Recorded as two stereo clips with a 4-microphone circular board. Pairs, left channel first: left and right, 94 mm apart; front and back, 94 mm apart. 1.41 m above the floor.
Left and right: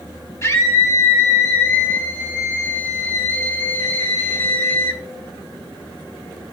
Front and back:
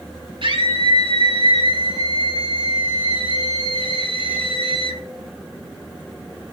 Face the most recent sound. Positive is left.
turn(degrees=160)